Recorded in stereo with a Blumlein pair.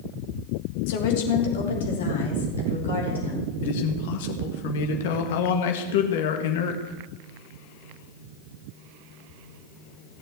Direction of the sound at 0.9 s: 50° left.